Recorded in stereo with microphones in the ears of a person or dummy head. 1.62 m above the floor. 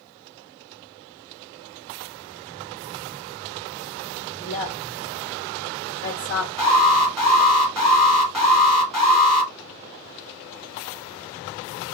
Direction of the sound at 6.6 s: Centre (ahead or behind).